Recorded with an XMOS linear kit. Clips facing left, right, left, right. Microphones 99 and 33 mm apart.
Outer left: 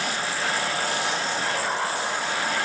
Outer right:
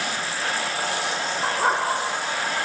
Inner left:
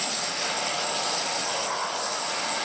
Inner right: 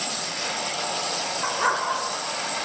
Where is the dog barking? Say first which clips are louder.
Outer right 4 dB, inner right 5 dB; 60° right (ahead or behind), 3.5 m.